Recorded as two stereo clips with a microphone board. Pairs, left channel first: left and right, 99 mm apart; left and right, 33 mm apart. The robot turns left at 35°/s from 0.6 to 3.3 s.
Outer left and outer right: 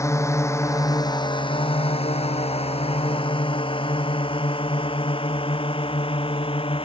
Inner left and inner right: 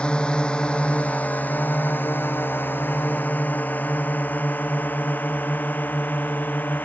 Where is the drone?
30° left (ahead or behind); by 6.9 s 65° left (ahead or behind).